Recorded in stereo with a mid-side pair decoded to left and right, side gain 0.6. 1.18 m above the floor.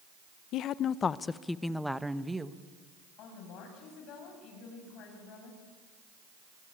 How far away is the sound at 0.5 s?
About 0.9 m.